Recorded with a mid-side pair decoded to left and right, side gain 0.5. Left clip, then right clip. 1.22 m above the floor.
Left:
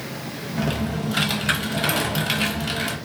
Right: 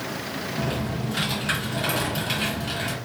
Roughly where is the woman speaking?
I don't hear a woman speaking.